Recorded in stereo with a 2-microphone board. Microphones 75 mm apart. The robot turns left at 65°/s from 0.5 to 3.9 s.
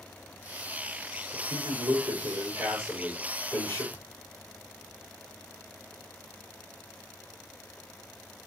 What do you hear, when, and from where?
1.3 s a man speaking: 55° right, 6.5 m; by 3.8 s 140° left, 6.5 m
3.9 s a thud: 20° left (ahead or behind), 0.9 m